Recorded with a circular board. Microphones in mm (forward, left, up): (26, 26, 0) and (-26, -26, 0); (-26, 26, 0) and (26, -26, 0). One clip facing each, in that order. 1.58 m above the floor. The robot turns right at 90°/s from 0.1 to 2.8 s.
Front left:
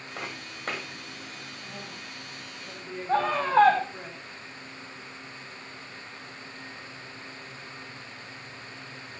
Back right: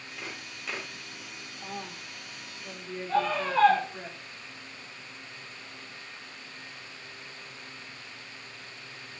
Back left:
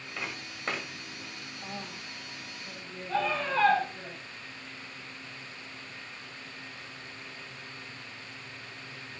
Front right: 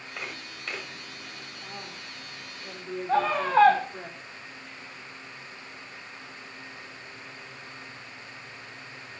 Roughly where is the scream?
Ahead.